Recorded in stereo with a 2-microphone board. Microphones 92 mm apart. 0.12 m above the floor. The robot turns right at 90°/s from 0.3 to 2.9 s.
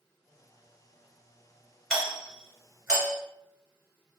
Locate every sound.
1.9 s a doorbell: 5° left (ahead or behind), 1.5 m; by 3.2 s 25° right (ahead or behind), 1.5 m